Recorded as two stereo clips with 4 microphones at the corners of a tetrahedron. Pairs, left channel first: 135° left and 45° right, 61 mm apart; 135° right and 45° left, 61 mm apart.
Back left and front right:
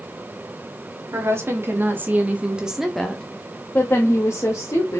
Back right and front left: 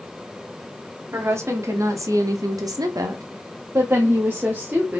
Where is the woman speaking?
Straight ahead, 1.3 m; by 5.0 s 110° left, 1.2 m.